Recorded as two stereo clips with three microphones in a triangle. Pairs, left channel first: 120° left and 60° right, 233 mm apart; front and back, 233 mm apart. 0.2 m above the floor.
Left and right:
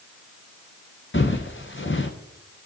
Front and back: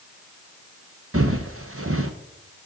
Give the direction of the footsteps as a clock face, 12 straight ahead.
7 o'clock.